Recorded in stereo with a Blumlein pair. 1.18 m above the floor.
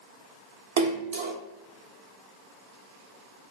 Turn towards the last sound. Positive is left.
turn(degrees=-55)